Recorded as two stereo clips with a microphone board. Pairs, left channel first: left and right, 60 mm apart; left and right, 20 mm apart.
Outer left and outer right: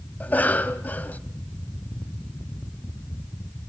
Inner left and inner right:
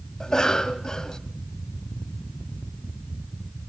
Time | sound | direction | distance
0.2 | a cough | 30° left (ahead or behind) | 1.4 m